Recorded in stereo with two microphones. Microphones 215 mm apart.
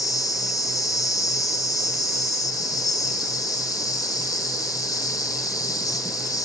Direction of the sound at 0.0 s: 15° left (ahead or behind).